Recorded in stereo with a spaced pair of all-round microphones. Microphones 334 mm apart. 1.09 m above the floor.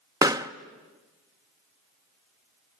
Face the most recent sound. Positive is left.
turn(degrees=-10)  # may be behind; listen again after turning